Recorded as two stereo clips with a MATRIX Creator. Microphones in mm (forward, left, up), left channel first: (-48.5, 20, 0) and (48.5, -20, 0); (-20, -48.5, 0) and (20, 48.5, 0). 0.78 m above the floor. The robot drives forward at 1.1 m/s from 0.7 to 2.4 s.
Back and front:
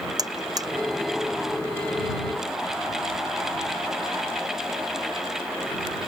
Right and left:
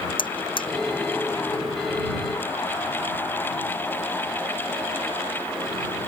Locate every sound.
0.2 s a buzzer: 75° right